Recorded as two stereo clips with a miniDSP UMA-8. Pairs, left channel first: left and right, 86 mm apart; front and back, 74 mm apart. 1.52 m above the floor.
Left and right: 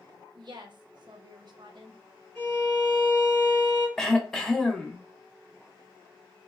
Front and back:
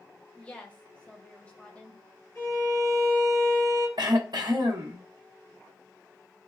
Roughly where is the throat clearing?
Behind.